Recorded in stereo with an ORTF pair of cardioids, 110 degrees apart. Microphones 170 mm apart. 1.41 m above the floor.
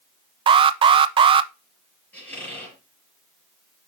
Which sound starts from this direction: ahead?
A squeak, at 2.1 s.